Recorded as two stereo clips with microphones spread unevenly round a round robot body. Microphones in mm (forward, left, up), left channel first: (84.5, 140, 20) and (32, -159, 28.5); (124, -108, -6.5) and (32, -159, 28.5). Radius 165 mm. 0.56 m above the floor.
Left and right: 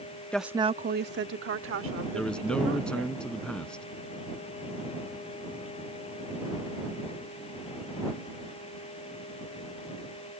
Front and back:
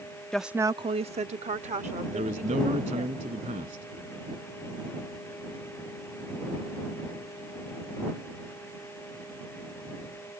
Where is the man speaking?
165° left.